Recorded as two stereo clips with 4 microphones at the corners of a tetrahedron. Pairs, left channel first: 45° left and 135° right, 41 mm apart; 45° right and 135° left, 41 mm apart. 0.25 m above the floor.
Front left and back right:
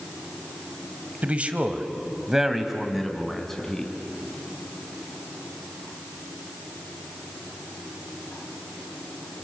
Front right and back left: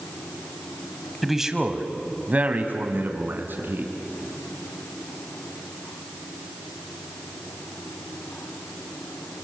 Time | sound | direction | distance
1.2 | a man speaking | 140° right | 1.7 m